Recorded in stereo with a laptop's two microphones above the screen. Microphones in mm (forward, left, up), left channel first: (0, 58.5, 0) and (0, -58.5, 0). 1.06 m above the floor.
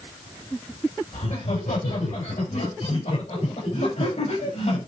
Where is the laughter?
85° left, 5 m; by 4.8 s 65° left (ahead or behind), 6.5 m.